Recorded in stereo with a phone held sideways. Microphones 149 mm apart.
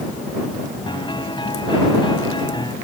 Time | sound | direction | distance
0.9 | a piano | 30° left (ahead or behind) | ?